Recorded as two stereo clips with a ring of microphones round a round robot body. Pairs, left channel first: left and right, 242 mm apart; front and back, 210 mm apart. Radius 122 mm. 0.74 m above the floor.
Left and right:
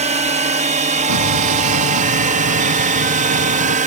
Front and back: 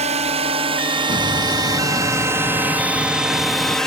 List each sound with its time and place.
0.0 s a drone: 135° right; by 3.9 s 85° right
1.1 s an explosion: 70° right